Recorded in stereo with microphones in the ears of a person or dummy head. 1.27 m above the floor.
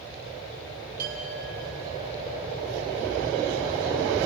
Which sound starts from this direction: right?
A clink, at 1.0 s.